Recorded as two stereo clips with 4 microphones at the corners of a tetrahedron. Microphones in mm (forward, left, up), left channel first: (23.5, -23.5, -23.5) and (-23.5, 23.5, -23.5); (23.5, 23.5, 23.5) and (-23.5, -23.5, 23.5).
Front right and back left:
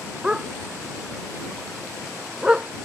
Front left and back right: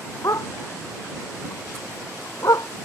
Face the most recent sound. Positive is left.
turn(degrees=60)